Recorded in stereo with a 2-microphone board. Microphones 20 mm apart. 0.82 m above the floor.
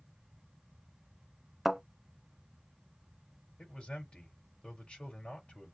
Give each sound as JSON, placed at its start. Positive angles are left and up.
{"t": 1.6, "sound": "a thud", "side_deg": -5, "distance_m": 0.8}
{"t": 3.6, "sound": "a man speaking", "side_deg": 80, "distance_m": 3.5}